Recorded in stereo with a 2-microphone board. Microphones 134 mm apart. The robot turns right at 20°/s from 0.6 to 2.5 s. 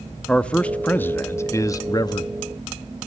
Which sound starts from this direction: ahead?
A man speaking, at 0.3 s.